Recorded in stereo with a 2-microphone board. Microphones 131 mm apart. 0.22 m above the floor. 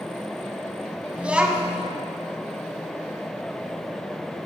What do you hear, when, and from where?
1.2 s a child speaking: 10° right (ahead or behind), 0.9 m